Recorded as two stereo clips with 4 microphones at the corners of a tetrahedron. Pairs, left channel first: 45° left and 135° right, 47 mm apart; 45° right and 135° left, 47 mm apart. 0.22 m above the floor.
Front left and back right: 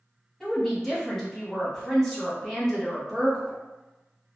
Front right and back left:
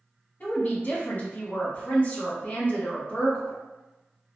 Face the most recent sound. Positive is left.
turn(degrees=-35)